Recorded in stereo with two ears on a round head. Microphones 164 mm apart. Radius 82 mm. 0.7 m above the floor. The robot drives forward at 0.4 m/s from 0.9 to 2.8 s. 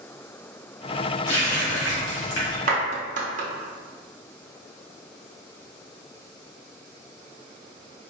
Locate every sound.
1.3 s a running tap: 75° left (ahead or behind), 1.8 m; by 2.6 s 65° left (ahead or behind), 1.9 m
2.7 s a clap: 45° right (ahead or behind), 0.8 m